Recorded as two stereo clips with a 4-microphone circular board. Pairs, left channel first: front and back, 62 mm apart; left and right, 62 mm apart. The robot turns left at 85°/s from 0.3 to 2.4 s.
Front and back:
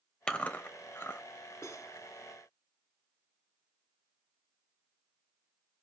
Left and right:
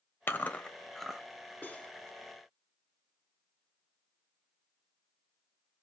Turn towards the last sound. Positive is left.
turn(degrees=-35)